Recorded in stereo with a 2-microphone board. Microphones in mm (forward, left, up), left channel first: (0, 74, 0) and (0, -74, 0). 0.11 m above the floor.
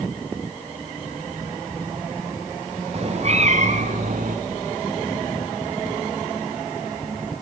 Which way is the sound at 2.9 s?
45° right (ahead or behind).